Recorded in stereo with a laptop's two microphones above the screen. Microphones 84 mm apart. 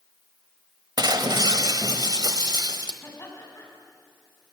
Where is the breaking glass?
55° right (ahead or behind), 1.2 m.